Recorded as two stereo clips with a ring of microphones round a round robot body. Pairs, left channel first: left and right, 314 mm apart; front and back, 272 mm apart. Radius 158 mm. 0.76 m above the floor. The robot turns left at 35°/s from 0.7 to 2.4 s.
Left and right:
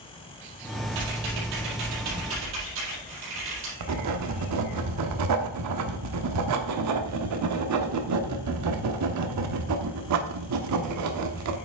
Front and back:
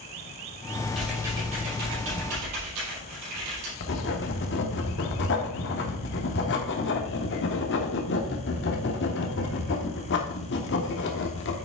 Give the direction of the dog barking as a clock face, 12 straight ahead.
I don't hear a dog barking.